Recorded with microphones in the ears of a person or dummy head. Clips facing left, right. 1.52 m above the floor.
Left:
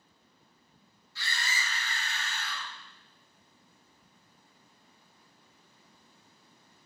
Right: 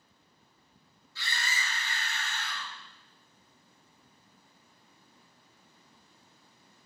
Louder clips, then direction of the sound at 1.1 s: Even; 55° left (ahead or behind).